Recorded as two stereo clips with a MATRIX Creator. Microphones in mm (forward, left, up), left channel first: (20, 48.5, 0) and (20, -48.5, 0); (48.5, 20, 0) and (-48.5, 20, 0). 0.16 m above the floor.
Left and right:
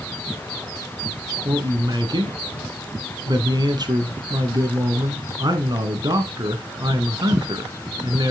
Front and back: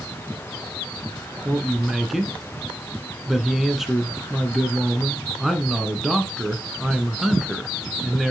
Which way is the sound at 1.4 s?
95° right.